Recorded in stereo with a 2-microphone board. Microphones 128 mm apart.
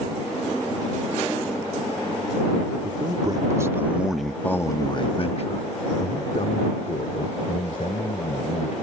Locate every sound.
2.8 s a man speaking: 35° right (ahead or behind); by 8.8 s 70° left (ahead or behind)